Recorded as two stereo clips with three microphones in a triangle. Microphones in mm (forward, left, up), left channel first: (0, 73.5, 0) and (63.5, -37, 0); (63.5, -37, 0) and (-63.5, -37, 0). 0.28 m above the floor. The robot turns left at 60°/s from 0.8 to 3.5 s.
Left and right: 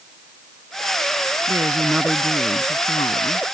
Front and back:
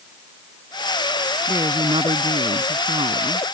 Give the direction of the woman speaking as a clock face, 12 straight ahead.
4 o'clock.